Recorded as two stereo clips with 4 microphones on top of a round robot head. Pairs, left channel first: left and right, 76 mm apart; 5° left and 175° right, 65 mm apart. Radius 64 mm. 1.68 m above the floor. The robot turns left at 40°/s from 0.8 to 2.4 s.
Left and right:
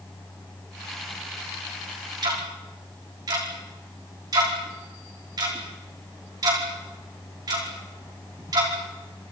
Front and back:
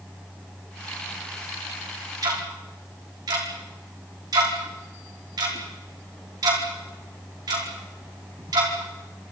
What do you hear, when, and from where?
2.2 s ticking: 130° right, 5 m; by 8.7 s 135° right, 5 m